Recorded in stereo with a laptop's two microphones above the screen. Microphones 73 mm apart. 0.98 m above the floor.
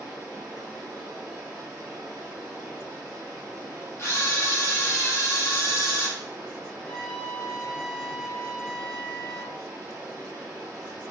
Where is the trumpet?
10° left (ahead or behind), 0.7 m.